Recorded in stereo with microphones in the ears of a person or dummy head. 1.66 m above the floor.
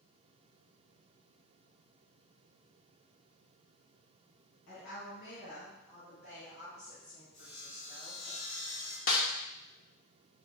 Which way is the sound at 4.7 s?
65° left (ahead or behind).